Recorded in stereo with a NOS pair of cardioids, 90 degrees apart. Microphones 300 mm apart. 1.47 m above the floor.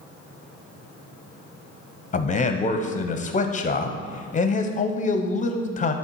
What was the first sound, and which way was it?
A man speaking, 25° left.